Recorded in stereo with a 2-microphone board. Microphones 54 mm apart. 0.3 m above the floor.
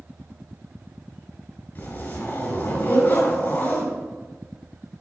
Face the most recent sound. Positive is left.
turn(degrees=45)  # may be behind; listen again after turning